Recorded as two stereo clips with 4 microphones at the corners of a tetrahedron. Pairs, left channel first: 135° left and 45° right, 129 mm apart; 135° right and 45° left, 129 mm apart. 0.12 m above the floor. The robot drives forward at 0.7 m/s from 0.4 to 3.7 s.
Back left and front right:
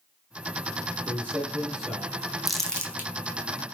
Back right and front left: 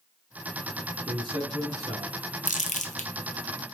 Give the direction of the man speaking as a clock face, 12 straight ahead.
11 o'clock.